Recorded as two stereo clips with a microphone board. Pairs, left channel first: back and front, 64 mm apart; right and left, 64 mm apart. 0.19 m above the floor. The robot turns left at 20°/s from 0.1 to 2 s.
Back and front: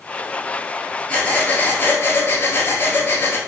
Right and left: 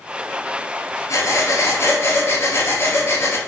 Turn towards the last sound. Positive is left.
turn(degrees=-125)